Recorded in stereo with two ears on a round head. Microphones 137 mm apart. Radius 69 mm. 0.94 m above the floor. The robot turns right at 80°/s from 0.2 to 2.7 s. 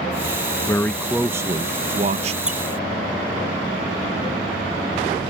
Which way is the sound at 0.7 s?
150° left.